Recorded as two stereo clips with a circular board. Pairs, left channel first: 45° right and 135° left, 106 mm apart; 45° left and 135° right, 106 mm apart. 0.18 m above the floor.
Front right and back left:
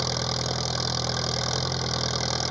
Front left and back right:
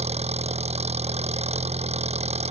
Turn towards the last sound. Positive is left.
turn(degrees=-135)